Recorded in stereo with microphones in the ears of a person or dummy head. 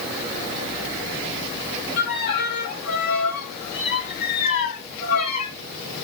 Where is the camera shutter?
No camera shutter in this recording.